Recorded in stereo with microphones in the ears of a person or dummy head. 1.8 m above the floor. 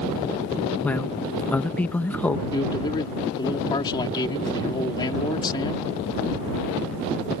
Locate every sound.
0.8 s a man speaking: 10° left (ahead or behind)
2.5 s a man speaking: 25° left (ahead or behind)